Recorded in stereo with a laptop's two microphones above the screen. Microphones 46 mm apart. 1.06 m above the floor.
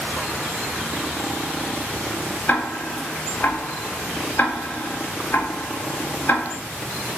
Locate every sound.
2.5 s ticking: 35° left (ahead or behind), 0.5 m